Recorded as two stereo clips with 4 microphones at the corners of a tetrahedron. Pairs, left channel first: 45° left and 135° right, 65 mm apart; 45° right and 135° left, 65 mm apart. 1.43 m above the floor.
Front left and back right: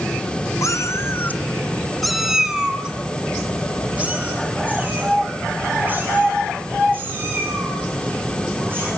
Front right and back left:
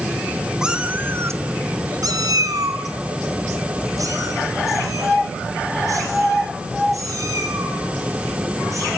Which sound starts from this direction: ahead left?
A cat meowing, at 0.6 s.